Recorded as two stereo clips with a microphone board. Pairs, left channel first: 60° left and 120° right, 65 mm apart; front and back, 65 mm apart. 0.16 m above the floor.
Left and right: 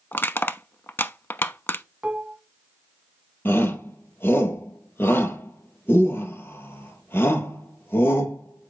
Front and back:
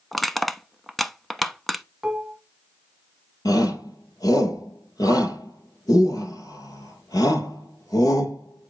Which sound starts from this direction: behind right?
Dishes clattering, at 2.0 s.